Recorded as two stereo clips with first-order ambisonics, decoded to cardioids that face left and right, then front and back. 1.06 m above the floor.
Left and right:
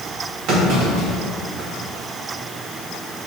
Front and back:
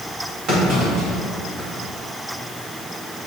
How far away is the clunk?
About 2 m.